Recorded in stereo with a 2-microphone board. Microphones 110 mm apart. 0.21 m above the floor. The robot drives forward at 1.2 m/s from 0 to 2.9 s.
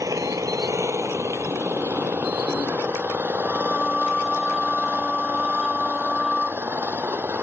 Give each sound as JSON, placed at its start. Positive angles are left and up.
{"t": 0.0, "sound": "an engine running", "side_deg": -30}
{"t": 3.4, "sound": "singing", "side_deg": 5}